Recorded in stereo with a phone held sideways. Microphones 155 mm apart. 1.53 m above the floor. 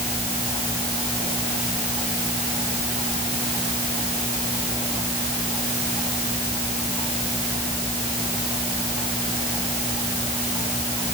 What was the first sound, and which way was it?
Only background noise.